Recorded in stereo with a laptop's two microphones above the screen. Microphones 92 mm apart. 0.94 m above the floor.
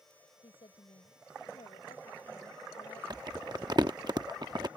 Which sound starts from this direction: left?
A woman speaking, at 0.4 s.